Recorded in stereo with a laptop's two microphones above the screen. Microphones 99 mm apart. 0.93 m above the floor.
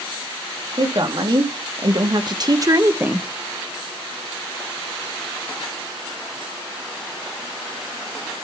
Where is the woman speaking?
50° right (ahead or behind), 2 m; by 3.3 s 10° right (ahead or behind), 0.8 m.